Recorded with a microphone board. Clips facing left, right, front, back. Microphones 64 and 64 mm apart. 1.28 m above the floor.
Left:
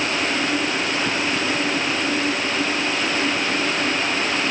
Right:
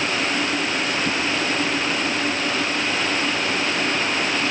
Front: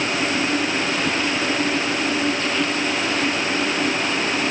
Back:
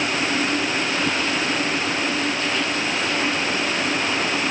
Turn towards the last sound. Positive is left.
No sound to turn to.